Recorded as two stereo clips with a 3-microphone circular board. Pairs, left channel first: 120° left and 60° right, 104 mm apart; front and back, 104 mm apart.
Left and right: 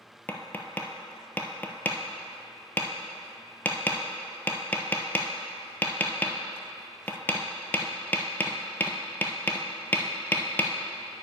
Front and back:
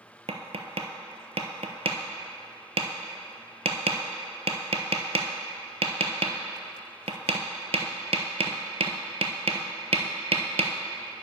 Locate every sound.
0.3 s tapping: 170° right, 0.7 m